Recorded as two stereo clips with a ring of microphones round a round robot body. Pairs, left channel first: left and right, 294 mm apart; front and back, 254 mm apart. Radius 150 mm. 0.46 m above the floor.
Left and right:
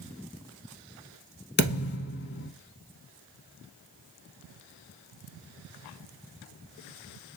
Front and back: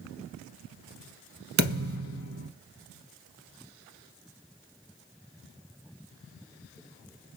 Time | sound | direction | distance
1.6 | a thud | 145° left | 0.8 m